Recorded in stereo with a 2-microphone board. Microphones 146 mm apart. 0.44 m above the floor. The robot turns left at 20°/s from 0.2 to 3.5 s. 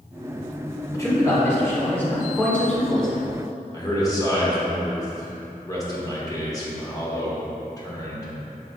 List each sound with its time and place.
0.9 s a man speaking: 20° left (ahead or behind), 1.2 m; by 3.2 s 5° left (ahead or behind), 1.2 m
3.7 s a man speaking: 25° left (ahead or behind), 0.9 m